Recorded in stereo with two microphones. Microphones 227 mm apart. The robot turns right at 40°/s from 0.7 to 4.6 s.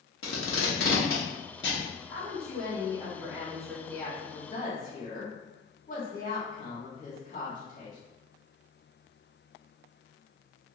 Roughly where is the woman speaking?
Ahead right.